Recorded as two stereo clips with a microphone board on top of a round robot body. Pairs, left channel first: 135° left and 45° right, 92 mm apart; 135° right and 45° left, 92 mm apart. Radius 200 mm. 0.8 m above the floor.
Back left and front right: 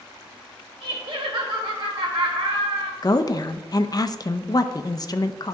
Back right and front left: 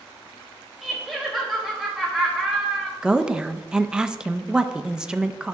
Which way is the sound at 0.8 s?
45° right.